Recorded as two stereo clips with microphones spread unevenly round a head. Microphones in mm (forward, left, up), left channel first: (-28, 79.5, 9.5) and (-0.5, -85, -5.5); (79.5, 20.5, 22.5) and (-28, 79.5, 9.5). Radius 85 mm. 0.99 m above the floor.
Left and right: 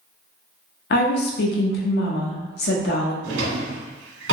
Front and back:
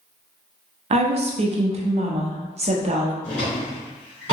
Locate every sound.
0.9 s a woman speaking: 125° left, 0.6 m
3.2 s a drawer: 90° right, 1.2 m